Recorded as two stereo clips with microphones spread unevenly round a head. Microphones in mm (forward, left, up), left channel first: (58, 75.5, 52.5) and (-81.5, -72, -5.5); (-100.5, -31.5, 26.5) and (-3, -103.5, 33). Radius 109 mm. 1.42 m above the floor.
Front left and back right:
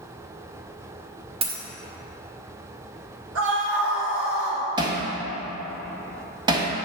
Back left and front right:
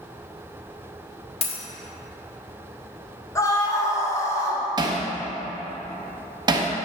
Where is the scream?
150° right, 2.5 m.